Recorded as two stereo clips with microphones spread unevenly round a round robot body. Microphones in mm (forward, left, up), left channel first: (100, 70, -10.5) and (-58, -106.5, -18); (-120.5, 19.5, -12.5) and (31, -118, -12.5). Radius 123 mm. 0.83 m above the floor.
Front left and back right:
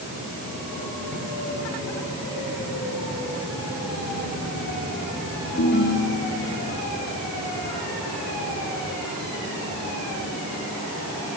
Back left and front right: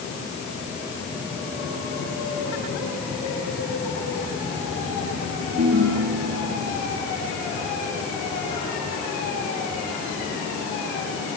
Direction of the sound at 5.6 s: Straight ahead.